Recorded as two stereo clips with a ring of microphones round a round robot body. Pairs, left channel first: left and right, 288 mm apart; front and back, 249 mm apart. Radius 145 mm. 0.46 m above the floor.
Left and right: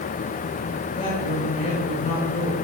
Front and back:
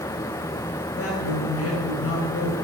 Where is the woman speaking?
20° left, 2.5 m.